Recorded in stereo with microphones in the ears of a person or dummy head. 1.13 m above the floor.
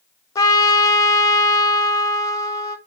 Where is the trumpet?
25° left (ahead or behind), 0.7 m.